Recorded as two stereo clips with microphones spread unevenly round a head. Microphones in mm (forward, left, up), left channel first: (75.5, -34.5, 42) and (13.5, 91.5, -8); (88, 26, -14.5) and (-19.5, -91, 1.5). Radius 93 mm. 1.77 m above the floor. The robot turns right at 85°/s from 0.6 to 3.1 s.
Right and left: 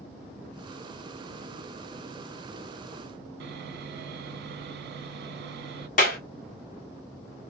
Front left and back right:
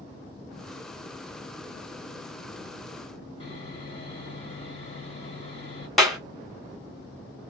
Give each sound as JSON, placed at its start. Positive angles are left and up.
{"t": 3.4, "sound": "sawing", "azimuth_deg": 105, "distance_m": 1.0}
{"t": 6.0, "sound": "a clap", "azimuth_deg": -45, "distance_m": 1.6}